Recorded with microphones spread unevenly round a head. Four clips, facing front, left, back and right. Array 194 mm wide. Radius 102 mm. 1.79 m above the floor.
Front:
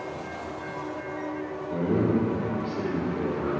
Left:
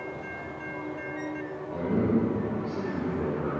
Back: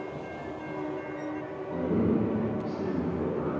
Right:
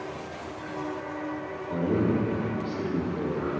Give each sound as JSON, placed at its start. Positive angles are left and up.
{"t": 1.7, "sound": "a man speaking", "azimuth_deg": -55, "distance_m": 3.0}